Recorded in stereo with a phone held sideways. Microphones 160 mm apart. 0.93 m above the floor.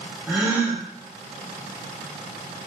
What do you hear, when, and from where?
0.3 s a gasp: 15° right (ahead or behind), 0.7 m